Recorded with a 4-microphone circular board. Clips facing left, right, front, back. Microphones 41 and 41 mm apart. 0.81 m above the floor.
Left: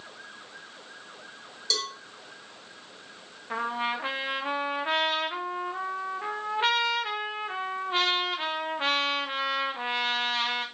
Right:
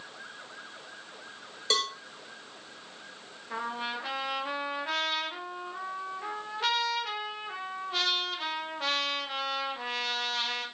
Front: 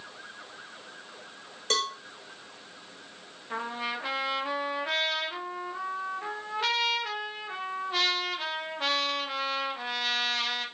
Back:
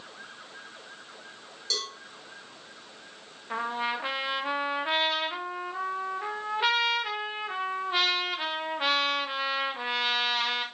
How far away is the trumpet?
About 1.1 m.